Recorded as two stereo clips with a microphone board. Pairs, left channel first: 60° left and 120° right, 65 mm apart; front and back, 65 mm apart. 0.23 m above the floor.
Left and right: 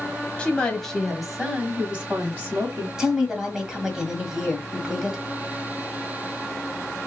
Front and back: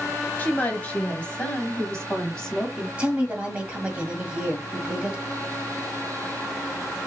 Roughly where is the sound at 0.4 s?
Ahead.